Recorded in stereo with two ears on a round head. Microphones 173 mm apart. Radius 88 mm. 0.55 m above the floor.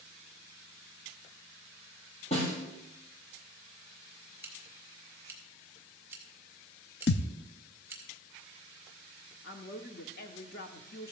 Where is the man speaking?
50° left (ahead or behind), 1.0 m.